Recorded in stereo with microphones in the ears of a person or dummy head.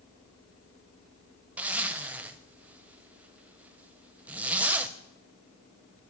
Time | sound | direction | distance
1.6 | a zipper | 5° right (ahead or behind) | 0.5 m